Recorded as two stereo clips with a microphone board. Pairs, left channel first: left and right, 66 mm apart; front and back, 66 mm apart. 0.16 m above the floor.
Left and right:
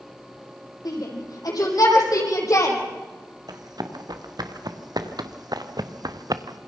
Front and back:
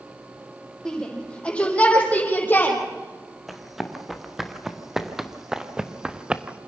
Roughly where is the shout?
Left.